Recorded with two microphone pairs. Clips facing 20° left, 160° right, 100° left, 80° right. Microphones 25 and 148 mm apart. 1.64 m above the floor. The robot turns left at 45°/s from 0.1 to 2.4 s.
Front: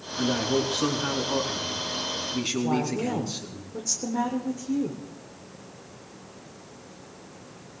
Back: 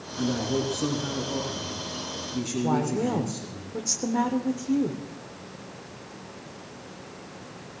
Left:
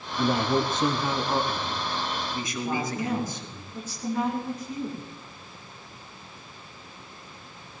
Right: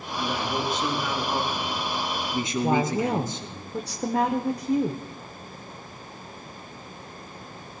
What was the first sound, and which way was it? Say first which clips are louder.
A man speaking: front 2 dB, left 5 dB; 85° left.